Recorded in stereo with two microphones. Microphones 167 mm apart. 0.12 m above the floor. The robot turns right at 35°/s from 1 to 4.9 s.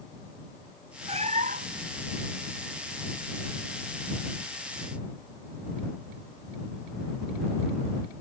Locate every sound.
1.1 s a cat meowing: 35° right (ahead or behind); by 1.9 s 65° right (ahead or behind)